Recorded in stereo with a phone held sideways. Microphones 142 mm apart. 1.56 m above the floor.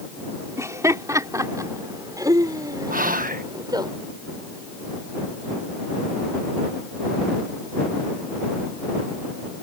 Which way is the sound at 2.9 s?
80° right.